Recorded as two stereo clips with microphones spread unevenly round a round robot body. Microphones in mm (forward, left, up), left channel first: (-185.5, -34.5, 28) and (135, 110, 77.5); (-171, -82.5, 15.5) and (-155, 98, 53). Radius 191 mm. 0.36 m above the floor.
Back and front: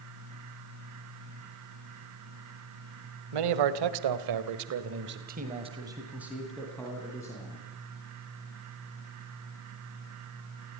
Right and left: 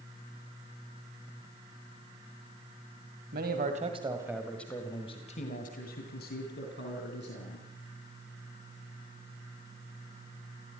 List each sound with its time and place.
3.3 s a man speaking: 30° left, 2 m; by 7.7 s 80° right, 4 m